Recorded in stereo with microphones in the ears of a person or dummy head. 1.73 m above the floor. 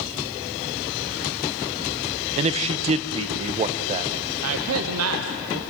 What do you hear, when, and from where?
2.4 s a man speaking: 30° right (ahead or behind), 1.2 m
4.4 s a man speaking: 80° right, 1.3 m